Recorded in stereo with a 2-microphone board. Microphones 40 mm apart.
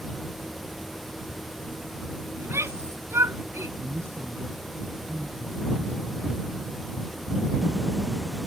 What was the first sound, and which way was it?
A shout, 85° right.